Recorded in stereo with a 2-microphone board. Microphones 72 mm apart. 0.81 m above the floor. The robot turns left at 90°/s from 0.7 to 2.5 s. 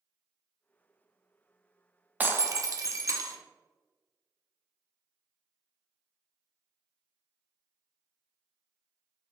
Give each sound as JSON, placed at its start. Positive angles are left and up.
{"t": 2.2, "sound": "breaking glass", "side_deg": -20, "distance_m": 0.5}